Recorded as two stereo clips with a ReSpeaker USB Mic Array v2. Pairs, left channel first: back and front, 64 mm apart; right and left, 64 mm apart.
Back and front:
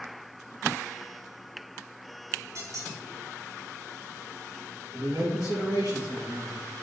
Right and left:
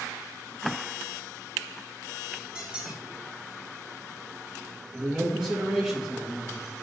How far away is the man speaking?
About 3.5 m.